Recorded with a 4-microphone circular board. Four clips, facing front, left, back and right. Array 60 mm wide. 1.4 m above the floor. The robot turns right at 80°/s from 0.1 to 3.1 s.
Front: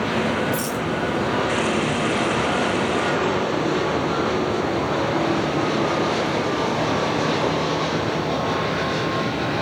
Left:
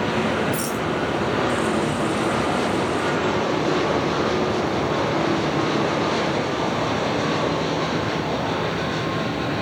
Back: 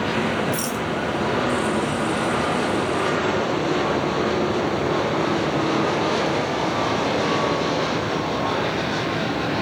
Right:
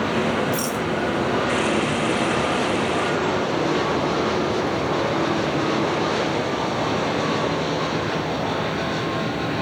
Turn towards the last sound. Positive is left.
turn(degrees=55)